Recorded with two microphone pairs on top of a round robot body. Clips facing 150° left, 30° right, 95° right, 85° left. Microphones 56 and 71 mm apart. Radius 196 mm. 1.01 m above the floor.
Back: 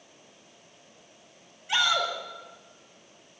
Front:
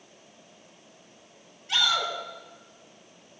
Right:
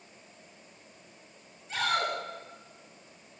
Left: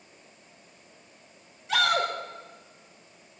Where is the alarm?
No alarm in this recording.